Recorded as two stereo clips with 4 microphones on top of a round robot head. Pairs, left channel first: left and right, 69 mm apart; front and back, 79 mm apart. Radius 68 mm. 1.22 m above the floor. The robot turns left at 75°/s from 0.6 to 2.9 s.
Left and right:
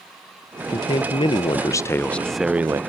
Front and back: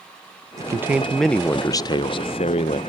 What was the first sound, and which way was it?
A man speaking, 130° left.